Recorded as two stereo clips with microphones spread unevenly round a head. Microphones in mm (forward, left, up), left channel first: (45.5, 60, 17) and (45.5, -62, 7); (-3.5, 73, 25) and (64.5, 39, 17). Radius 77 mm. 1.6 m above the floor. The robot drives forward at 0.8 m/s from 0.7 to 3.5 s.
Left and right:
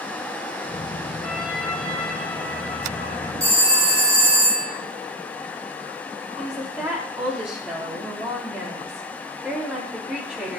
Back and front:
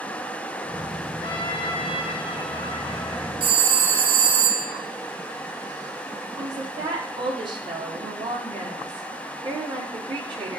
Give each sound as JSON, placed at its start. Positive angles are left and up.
{"t": 1.2, "sound": "a trumpet", "azimuth_deg": 175, "distance_m": 1.4}
{"t": 3.4, "sound": "a phone ringing", "azimuth_deg": -20, "distance_m": 4.5}
{"t": 6.4, "sound": "a woman speaking", "azimuth_deg": -10, "distance_m": 4.5}